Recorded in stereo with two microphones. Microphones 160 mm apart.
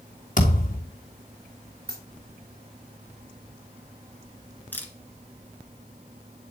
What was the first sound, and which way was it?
A thud, 55° left (ahead or behind).